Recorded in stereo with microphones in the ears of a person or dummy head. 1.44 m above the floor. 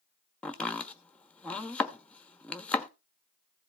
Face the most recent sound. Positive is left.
turn(degrees=5)  # may be behind; listen again after turning